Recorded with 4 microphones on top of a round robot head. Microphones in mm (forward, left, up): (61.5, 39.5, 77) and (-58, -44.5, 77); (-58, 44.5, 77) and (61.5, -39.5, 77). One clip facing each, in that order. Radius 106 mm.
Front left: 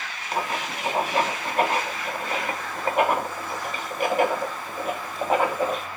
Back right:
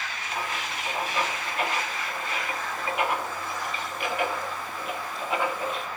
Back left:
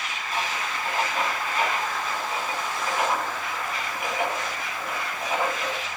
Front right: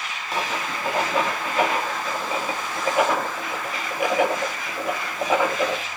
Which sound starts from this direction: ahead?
Writing, at 0.3 s.